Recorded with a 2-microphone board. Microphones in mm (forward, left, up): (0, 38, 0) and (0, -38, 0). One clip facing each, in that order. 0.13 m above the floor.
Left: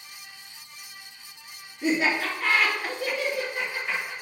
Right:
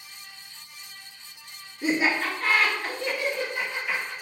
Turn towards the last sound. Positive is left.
turn(degrees=25)  # may be behind; listen again after turning